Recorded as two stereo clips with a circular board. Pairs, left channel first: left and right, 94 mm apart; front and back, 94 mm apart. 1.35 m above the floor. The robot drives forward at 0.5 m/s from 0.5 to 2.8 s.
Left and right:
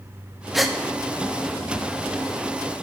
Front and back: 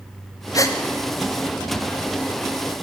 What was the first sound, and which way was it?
A gasp, 5° right.